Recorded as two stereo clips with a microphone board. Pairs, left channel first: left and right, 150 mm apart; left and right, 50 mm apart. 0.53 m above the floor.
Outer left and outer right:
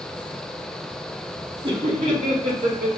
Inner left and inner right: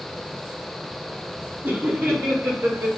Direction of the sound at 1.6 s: 35° right (ahead or behind).